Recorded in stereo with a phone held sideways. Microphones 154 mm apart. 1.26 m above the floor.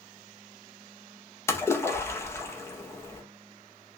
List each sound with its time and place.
1.5 s a splash: 15° left (ahead or behind), 0.6 m